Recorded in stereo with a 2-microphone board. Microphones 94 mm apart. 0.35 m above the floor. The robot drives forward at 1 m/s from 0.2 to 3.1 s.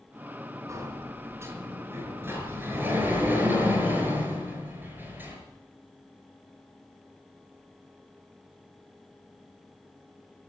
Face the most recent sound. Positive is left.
turn(degrees=-20)  # may be behind; listen again after turning